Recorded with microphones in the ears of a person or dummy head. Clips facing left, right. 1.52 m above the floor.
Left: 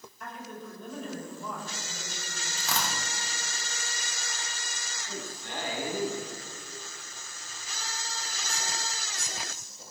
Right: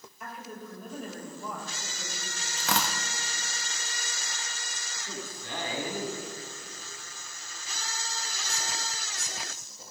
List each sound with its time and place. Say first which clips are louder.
0.2 s a woman speaking: even; 10° right (ahead or behind), 5.5 m
2.6 s tearing paper: right 3 dB; 60° right (ahead or behind), 1.2 m
5.1 s a man speaking: even; 90° right, 6 m